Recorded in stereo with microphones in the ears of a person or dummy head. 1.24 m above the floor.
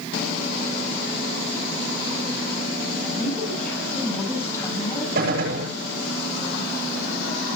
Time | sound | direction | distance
3.0 | a woman speaking | 5° right (ahead or behind) | 7 m
5.2 | a gunshot | 65° right (ahead or behind) | 9 m